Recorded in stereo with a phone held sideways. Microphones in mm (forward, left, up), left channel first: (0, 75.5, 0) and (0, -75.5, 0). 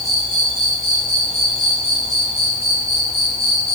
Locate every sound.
0.0 s an insect: 45° left (ahead or behind), 1.9 m